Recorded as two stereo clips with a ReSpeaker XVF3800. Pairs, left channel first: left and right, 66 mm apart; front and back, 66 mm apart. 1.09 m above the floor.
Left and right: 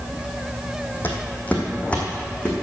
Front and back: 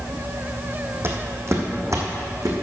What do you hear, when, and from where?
1.0 s footsteps: 145° left, 1.9 m; by 2.5 s 165° left, 2.5 m